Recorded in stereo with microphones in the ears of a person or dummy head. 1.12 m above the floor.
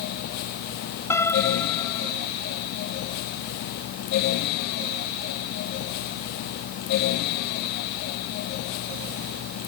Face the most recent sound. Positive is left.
turn(degrees=15)  # may be behind; listen again after turning